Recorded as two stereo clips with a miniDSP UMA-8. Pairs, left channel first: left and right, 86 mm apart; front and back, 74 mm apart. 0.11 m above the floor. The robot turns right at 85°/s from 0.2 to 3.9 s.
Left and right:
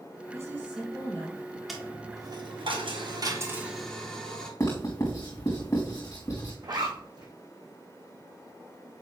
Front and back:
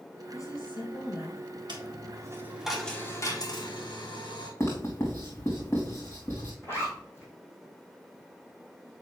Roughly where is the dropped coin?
Behind.